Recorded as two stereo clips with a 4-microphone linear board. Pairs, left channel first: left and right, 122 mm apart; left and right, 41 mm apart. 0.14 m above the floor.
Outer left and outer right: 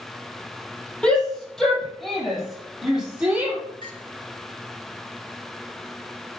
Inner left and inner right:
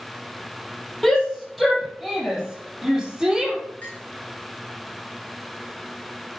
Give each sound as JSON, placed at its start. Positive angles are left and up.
{"t": 1.0, "sound": "a shout", "side_deg": 5, "distance_m": 5.0}
{"t": 3.8, "sound": "a clink", "side_deg": 35, "distance_m": 7.0}